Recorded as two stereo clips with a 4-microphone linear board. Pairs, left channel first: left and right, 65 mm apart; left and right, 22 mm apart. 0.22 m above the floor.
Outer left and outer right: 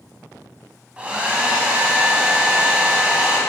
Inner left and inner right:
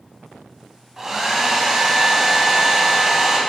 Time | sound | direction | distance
1.0 | a hair dryer | 20° right (ahead or behind) | 1.2 m